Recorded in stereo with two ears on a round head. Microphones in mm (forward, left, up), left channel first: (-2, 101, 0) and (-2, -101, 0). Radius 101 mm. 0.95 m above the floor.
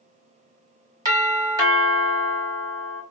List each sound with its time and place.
1.1 s a doorbell: 20° right (ahead or behind), 1.3 m